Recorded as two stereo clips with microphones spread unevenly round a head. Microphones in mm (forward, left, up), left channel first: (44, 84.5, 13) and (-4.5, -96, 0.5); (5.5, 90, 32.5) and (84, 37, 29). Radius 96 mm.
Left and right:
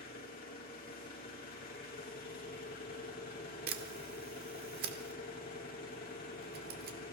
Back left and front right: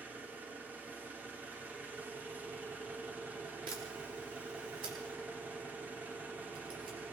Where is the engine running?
35° left, 2.5 m.